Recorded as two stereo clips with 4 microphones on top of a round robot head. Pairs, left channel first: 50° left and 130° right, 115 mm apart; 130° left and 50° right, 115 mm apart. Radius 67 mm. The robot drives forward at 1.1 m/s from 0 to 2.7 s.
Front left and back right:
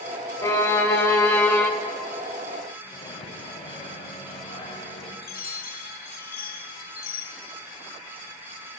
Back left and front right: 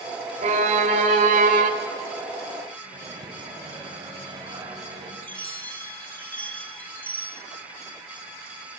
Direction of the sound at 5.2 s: 55° left.